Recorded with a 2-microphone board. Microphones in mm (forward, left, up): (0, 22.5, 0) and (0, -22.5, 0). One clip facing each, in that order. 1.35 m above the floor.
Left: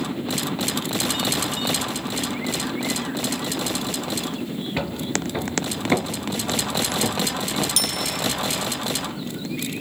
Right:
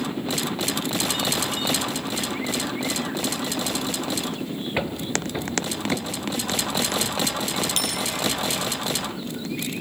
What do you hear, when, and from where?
4.8 s footsteps: 15° right (ahead or behind), 1.6 m; by 7.7 s 55° left (ahead or behind), 2.5 m
7.8 s a bicycle bell: 35° right (ahead or behind), 9 m